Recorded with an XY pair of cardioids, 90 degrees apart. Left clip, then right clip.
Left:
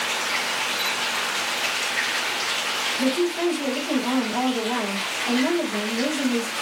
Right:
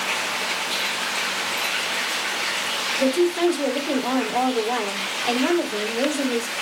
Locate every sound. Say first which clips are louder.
3.0 s a woman speaking: right 6 dB; 65° right, 4 m